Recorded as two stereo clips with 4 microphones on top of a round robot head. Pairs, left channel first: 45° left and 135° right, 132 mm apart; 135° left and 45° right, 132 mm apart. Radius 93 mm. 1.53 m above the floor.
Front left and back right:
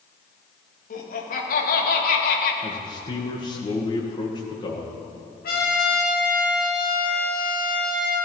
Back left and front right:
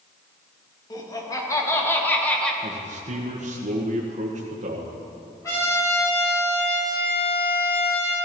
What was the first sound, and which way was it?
Laughter, 70° left.